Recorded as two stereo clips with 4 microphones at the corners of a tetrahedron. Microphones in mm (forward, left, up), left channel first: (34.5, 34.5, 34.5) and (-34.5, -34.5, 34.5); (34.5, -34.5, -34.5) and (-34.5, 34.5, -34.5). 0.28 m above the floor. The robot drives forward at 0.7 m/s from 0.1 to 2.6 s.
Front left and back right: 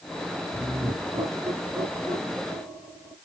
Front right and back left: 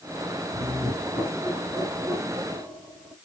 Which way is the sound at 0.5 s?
150° left.